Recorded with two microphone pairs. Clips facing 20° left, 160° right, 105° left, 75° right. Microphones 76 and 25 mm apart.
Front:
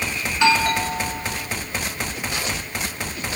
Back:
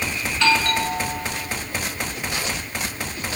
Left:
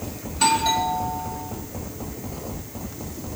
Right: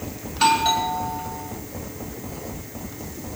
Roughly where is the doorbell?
Ahead right.